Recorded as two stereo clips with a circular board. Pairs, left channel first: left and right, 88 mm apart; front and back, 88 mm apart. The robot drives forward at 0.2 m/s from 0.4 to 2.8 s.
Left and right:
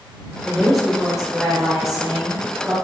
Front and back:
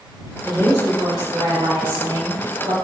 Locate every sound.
0.5 s a woman speaking: 175° right, 0.8 m; by 2.8 s straight behind, 1.1 m